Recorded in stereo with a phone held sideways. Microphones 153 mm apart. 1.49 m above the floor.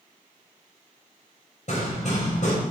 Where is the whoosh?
No whoosh in this recording.